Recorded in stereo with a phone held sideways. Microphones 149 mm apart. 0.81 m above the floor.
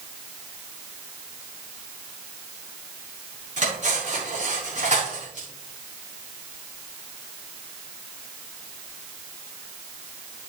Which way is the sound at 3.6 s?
60° right (ahead or behind).